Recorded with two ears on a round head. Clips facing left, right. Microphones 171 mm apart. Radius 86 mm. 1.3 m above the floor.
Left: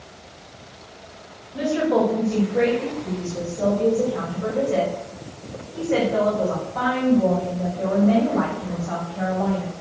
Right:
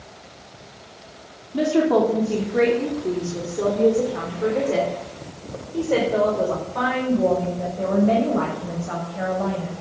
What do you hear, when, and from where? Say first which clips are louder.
1.5 s a woman speaking: right 2 dB; 85° right, 3 m; by 9.7 s 40° right (ahead or behind), 6.5 m